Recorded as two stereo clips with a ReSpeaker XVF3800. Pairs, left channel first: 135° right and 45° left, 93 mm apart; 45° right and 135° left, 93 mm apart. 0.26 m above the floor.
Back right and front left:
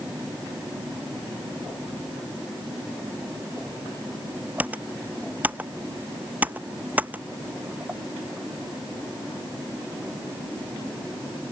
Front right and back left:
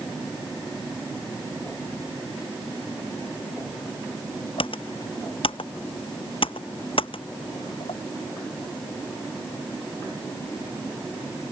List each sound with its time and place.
4.6 s typing on a keyboard: 30° right